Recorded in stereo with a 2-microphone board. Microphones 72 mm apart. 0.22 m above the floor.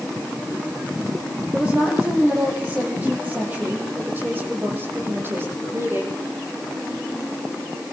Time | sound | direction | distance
1.5 | a woman speaking | 15° right (ahead or behind) | 8 m